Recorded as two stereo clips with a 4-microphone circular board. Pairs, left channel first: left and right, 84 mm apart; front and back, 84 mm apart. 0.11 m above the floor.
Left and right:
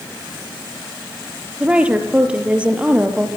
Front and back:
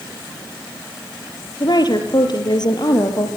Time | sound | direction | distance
1.6 | a woman speaking | 15° right | 3 m